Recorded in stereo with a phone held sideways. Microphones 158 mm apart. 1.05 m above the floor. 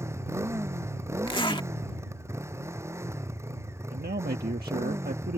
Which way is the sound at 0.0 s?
15° right (ahead or behind).